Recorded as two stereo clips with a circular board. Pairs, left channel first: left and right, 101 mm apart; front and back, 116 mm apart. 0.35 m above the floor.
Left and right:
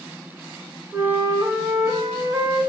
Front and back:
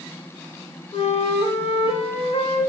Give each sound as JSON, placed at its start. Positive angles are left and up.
{"t": 0.9, "sound": "a flute", "azimuth_deg": -30, "distance_m": 0.7}